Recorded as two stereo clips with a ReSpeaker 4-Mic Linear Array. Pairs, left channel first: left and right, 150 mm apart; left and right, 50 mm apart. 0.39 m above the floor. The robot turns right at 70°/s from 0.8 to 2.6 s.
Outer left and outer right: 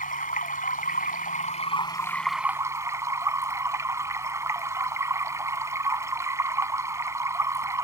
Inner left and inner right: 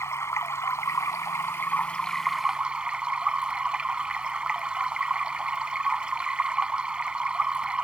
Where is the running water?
75° left; by 7.9 s 160° right.